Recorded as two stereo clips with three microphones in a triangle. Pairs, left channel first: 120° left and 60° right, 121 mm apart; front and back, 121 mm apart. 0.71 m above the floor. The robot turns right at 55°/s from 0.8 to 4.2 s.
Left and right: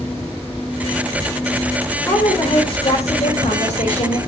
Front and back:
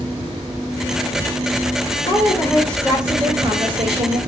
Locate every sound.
2.1 s a woman speaking: 45° left, 3 m; by 4.2 s 160° left, 3 m